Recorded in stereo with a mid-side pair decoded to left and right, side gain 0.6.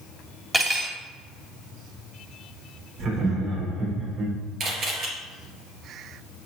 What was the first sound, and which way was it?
Cutlery clinking, 15° right.